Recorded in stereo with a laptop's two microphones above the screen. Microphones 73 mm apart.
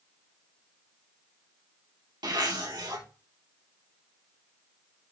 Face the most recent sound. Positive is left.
turn(degrees=-75)  # may be behind; listen again after turning